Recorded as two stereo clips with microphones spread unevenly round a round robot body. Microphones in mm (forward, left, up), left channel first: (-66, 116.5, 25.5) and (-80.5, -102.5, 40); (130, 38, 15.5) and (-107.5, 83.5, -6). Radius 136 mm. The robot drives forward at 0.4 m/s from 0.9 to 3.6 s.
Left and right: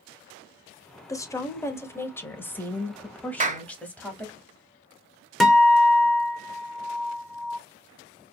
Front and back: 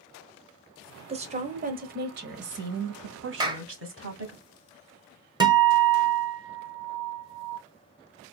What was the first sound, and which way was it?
A woman speaking, 145° left.